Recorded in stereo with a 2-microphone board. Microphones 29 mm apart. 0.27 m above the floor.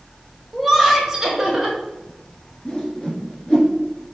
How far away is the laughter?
About 1.3 m.